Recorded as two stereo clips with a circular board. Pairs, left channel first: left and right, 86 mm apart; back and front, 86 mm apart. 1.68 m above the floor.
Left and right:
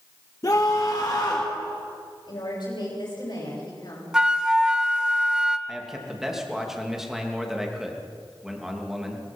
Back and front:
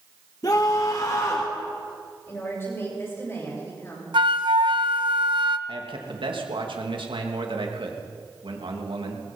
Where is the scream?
140° left, 1.7 m; by 1.5 s 130° left, 2.5 m.